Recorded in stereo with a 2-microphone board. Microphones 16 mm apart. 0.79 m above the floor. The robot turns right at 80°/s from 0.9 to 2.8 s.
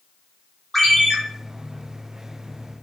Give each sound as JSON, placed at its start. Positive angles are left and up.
{"t": 0.7, "sound": "a ringtone", "side_deg": 20, "distance_m": 0.9}